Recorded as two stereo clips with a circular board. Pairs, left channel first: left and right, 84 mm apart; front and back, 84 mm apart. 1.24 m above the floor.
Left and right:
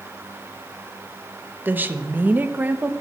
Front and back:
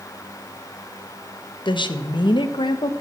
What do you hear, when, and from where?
1.6 s a woman speaking: 20° right, 0.9 m